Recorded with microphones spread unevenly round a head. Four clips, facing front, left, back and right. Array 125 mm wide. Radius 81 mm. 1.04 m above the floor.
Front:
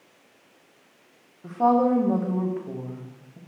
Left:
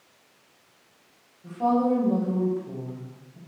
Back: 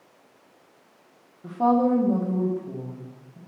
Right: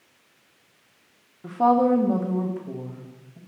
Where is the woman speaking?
80° right, 1.1 m; by 3.4 s 10° right, 1.7 m.